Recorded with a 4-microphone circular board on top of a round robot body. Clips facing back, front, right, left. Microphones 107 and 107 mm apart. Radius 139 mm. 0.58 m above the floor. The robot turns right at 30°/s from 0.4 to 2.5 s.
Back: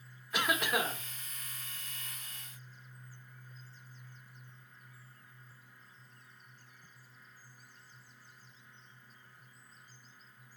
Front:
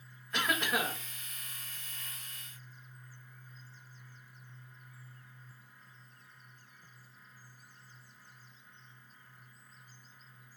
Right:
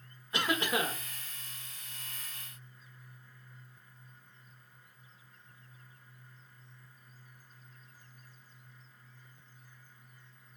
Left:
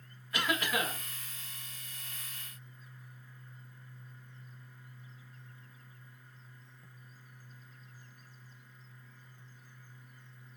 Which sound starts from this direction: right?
A cough, at 0.3 s.